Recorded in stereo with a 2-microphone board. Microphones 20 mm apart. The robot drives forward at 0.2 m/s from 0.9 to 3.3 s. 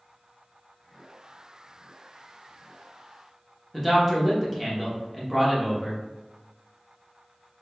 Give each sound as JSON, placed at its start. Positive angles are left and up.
{"t": 3.7, "sound": "a man speaking", "side_deg": 5, "distance_m": 0.7}